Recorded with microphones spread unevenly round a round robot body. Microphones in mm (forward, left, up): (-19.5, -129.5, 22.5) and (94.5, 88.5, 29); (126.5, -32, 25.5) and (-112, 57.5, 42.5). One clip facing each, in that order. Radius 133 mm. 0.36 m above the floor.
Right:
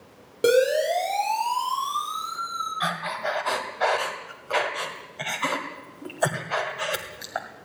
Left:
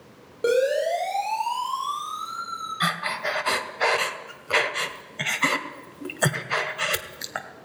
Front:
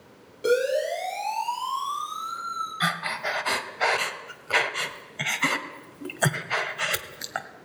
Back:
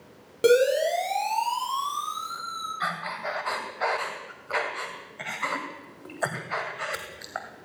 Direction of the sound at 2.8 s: 10° left.